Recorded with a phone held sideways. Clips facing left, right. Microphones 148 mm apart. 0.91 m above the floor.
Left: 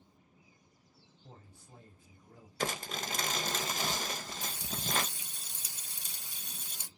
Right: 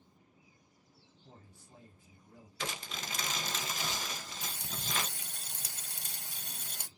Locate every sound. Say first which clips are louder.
1.2 s a man speaking: left 2 dB; 45° left (ahead or behind), 3 m
2.6 s crumpling: left 5 dB; 45° left (ahead or behind), 0.6 m
4.4 s frying: left 3 dB; 60° right (ahead or behind), 1.3 m